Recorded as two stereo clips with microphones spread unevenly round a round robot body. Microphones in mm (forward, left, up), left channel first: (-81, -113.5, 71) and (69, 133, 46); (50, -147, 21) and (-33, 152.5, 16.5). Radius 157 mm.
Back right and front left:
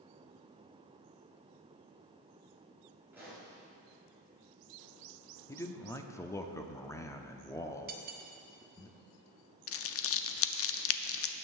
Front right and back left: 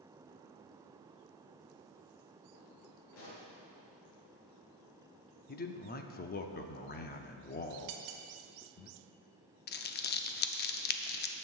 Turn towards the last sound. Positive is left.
turn(degrees=-115)